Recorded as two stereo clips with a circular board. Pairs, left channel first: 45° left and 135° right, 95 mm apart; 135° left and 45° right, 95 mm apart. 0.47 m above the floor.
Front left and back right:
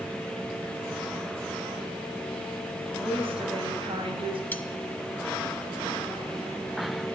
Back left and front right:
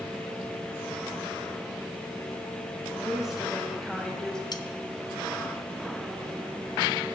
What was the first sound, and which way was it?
A woman speaking, 125° right.